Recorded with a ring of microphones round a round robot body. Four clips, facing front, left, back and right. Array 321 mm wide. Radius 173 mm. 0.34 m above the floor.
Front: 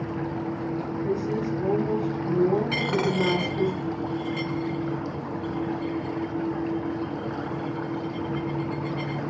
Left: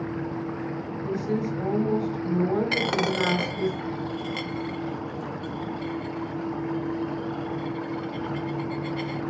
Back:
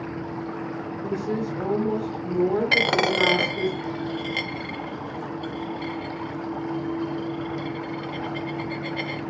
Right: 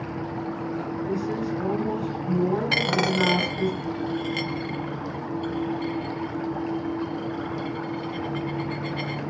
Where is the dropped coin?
175° right, 0.5 m.